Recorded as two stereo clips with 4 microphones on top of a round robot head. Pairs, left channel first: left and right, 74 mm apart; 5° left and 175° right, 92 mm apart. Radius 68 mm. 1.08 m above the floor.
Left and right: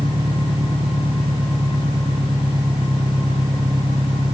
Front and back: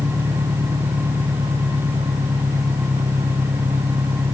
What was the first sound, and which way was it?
An engine running, 115° right.